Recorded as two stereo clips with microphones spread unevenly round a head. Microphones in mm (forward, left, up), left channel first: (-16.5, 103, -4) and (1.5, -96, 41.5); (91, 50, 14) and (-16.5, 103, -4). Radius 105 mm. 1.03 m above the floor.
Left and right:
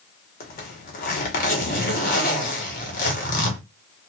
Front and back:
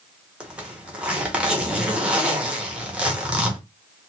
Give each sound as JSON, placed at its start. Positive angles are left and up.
{"t": 0.4, "sound": "a zipper", "azimuth_deg": 80, "distance_m": 1.1}